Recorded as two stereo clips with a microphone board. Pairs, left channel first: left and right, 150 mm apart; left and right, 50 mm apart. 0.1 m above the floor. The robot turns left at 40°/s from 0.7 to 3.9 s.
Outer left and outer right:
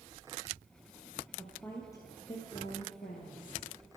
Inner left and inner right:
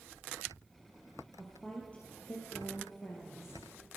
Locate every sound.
1.4 s a woman speaking: 175° left, 2.5 m; by 3.6 s 90° left, 2.5 m